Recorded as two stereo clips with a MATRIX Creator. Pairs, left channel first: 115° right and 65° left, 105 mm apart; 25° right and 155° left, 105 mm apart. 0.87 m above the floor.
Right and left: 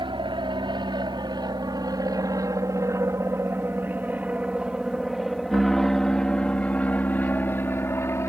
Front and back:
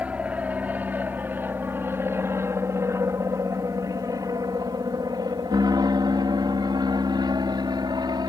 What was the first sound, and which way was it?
An aircraft, 85° left.